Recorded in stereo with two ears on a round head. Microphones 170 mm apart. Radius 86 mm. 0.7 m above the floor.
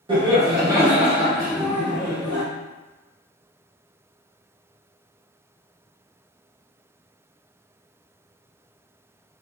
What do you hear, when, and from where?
0.1 s laughter: 25° right (ahead or behind), 1.0 m; by 2.4 s 20° left (ahead or behind), 1.2 m